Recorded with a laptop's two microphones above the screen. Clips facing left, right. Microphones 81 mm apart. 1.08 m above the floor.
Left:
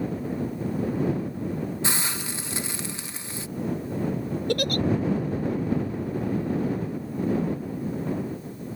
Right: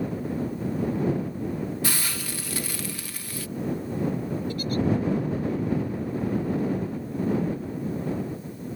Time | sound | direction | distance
1.8 | a hiss | 25° left (ahead or behind) | ?
4.5 | a giggle | 80° left | ?